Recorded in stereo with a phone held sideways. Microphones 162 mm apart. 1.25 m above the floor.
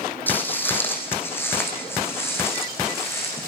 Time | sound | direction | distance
0.3 | footsteps | 10° left (ahead or behind) | 3.5 m